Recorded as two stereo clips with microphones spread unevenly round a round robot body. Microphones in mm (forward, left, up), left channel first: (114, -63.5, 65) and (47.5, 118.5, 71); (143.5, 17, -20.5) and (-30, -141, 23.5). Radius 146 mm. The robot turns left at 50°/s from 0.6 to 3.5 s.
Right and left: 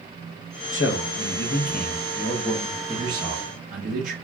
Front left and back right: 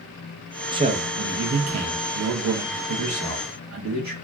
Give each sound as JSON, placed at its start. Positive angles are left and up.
{"t": 0.7, "sound": "a man speaking", "azimuth_deg": -60, "distance_m": 0.8}